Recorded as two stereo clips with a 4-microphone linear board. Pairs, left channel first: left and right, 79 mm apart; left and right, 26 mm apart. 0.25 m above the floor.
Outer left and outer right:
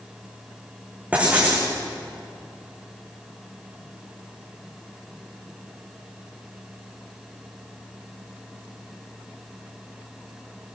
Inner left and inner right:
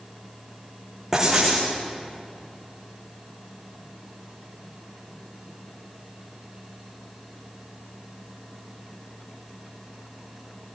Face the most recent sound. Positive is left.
turn(degrees=-20)  # may be behind; listen again after turning